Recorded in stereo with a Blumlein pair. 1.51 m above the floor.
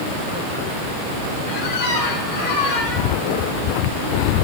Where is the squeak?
55° left, 3 m.